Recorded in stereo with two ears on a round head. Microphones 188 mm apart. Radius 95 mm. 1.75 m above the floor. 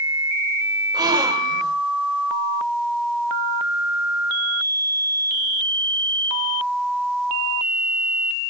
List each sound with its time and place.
0.9 s a gasp: 20° right (ahead or behind), 2 m